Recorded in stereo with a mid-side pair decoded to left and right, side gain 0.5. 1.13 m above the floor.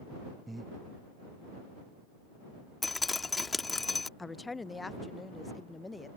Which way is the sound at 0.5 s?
15° right.